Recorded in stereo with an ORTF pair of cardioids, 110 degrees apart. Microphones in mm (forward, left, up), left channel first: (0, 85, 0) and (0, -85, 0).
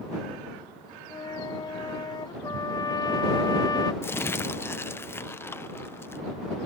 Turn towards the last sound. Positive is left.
turn(degrees=15)